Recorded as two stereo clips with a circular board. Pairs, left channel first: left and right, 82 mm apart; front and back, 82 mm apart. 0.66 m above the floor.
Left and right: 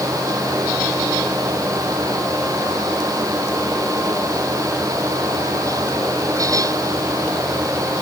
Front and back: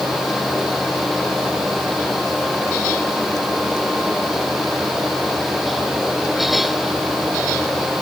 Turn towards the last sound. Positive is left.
No sound to turn to.